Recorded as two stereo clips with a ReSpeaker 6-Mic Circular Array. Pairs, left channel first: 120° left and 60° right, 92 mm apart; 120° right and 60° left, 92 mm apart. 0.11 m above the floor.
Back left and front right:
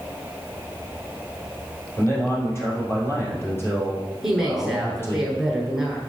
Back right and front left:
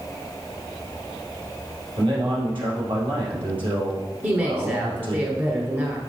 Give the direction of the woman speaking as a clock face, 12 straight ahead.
11 o'clock.